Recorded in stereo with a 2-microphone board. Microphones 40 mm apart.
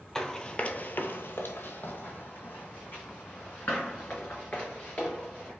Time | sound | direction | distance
0.1 | running footsteps | 10° left (ahead or behind) | 0.6 m